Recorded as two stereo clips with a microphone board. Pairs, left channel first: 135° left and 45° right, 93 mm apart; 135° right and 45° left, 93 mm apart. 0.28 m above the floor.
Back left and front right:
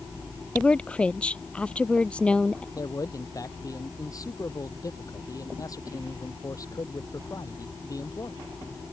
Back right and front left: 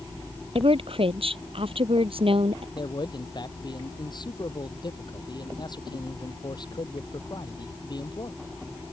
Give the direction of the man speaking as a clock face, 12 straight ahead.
6 o'clock.